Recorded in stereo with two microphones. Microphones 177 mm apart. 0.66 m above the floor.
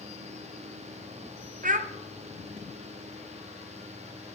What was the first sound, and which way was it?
A child speaking, 50° right (ahead or behind).